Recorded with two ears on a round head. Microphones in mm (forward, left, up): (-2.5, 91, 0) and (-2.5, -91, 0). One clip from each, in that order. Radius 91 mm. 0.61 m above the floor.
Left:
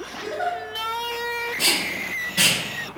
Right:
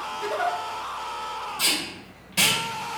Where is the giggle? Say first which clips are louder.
Even; 80° right, 0.8 m.